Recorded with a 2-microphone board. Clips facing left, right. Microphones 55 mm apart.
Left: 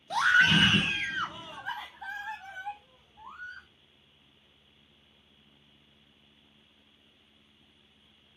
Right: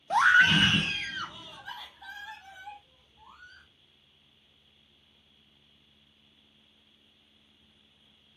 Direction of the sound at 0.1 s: 30° right (ahead or behind).